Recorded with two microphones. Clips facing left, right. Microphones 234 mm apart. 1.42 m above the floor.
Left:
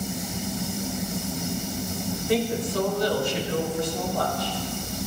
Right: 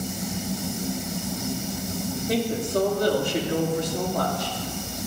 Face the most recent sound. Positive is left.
turn(degrees=-85)